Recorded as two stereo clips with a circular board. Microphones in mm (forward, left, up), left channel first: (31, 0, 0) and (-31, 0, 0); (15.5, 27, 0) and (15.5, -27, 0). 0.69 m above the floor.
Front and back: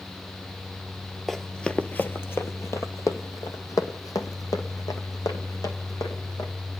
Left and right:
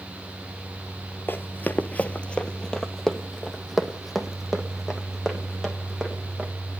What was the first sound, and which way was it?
Running footsteps, 90° left.